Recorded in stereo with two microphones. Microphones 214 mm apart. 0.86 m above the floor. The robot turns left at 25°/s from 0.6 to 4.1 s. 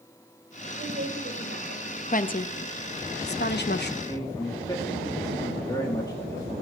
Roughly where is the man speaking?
Centre.